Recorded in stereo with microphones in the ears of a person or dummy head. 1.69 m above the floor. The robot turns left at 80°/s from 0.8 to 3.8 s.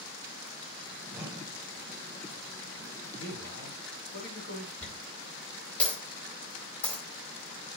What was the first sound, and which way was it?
A whoosh, 10° right.